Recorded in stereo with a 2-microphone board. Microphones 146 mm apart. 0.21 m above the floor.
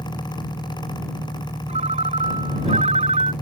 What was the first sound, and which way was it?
An engine running, 20° left (ahead or behind).